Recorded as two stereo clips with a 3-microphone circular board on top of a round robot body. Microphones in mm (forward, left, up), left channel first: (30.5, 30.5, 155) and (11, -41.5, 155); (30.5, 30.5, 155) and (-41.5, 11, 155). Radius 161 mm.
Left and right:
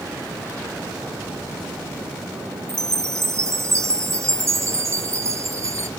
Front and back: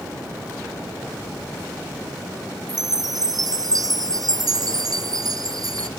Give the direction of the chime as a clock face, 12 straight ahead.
5 o'clock.